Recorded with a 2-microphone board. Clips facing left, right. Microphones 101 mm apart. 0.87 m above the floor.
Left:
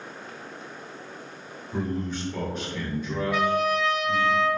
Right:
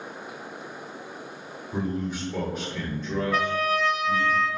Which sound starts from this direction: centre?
A man speaking, at 1.7 s.